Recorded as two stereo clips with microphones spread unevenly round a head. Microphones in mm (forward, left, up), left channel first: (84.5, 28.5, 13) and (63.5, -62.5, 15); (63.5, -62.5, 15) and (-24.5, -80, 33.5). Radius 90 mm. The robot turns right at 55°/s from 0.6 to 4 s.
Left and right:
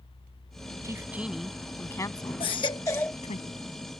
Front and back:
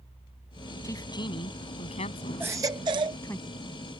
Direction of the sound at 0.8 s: 45° right.